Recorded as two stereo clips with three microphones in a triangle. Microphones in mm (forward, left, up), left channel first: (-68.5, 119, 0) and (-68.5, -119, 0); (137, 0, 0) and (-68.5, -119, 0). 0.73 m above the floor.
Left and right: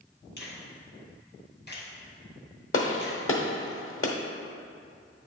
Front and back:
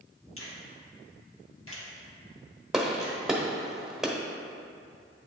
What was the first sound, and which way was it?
A finger snap, 50° left.